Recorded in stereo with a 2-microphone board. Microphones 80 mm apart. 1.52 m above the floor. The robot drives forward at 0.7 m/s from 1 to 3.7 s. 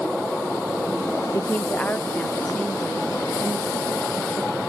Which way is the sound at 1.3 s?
35° left (ahead or behind).